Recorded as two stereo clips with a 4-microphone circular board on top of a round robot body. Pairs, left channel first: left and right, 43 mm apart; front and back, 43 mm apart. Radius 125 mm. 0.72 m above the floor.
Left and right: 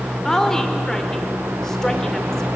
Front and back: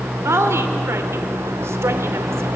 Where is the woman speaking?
170° left, 2 m.